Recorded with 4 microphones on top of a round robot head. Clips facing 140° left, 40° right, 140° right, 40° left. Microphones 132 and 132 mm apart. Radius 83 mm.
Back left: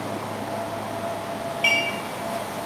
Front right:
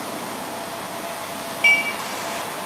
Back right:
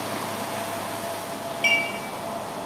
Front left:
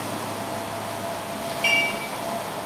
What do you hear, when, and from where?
1.6 s dishes clattering: 100° right, 8 m